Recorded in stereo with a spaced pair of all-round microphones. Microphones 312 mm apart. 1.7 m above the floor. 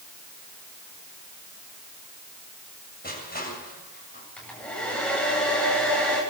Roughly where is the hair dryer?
Centre.